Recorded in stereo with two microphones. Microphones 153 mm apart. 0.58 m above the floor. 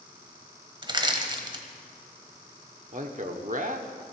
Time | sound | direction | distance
0.8 | crushing | 30° right (ahead or behind) | 1.2 m
2.9 | a man speaking | 55° right (ahead or behind) | 1.1 m